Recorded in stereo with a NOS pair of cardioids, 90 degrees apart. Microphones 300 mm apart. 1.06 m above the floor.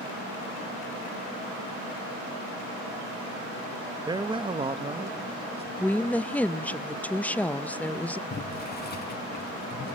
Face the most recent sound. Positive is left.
turn(degrees=35)